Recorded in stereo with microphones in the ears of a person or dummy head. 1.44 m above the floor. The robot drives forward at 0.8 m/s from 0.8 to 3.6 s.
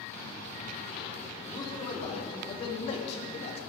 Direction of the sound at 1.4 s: 25° left (ahead or behind).